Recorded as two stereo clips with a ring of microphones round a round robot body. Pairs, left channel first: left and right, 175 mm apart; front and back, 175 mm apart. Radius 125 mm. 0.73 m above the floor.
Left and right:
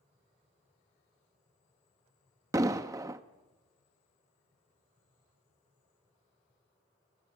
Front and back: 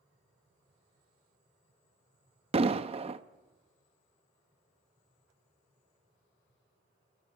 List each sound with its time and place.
2.5 s an explosion: 150° right, 0.6 m